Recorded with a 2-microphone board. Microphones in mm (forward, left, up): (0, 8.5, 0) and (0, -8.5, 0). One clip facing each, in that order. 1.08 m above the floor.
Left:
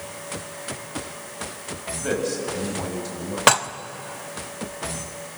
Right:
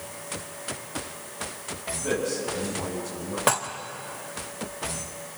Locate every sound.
2.0 s a man speaking: 55° left (ahead or behind), 7 m
3.5 s dishes clattering: 55° left (ahead or behind), 0.7 m